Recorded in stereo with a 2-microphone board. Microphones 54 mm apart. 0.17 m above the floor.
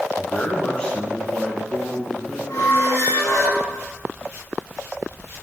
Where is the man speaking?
25° left (ahead or behind), 1.5 m; by 2.4 s 5° left (ahead or behind), 2 m.